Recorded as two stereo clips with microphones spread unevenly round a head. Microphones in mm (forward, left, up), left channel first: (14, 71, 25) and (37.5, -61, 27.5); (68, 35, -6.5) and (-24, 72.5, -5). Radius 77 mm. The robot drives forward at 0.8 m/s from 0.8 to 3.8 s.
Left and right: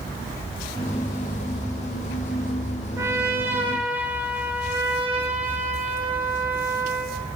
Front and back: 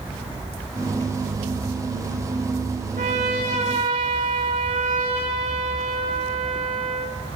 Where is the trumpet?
155° right, 3 m; by 7.2 s 160° right, 3.5 m.